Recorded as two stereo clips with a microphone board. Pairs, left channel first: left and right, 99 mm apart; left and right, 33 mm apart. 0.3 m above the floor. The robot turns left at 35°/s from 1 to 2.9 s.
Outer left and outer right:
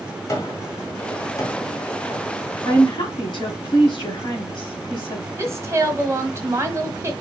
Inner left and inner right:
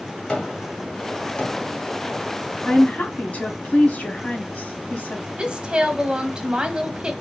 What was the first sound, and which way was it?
A gunshot, 35° left (ahead or behind).